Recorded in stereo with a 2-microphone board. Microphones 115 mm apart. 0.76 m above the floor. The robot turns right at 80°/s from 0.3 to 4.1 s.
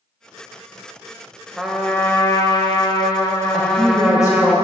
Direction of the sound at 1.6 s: 10° right.